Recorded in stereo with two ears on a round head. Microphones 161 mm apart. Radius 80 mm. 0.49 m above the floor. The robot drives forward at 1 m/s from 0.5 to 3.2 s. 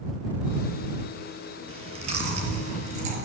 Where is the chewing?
35° right (ahead or behind), 6.5 m; by 3.2 s 45° right (ahead or behind), 5 m.